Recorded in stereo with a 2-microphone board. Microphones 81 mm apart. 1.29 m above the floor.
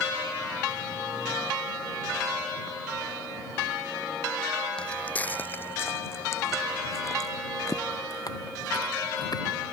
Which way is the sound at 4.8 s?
15° left (ahead or behind).